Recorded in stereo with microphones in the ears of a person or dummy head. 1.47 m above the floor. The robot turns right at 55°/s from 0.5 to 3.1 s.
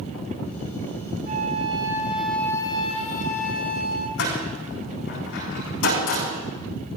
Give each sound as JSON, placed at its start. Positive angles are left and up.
{"t": 1.3, "sound": "a flute", "azimuth_deg": -45, "distance_m": 1.8}
{"t": 4.2, "sound": "a door slam", "side_deg": 65, "distance_m": 10.0}